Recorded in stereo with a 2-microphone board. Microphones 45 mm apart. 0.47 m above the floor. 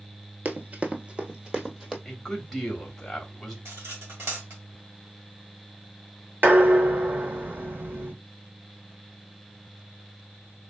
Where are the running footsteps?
45° right (ahead or behind), 0.6 m; by 1.9 s 10° right (ahead or behind), 1.0 m.